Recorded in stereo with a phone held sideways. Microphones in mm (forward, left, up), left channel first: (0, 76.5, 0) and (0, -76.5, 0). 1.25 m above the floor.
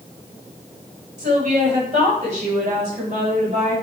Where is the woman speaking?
50° right (ahead or behind), 5.5 m.